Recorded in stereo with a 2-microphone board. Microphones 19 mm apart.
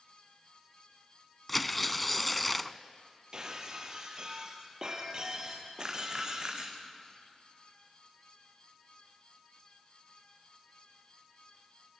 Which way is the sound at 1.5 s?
5° left (ahead or behind).